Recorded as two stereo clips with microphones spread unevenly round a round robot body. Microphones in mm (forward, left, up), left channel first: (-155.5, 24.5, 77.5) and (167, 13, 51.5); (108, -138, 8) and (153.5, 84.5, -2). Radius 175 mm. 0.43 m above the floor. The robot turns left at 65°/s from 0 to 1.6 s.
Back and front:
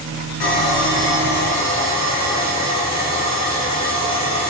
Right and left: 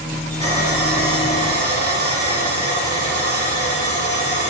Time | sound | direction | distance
0.4 | sawing | straight behind | 3 m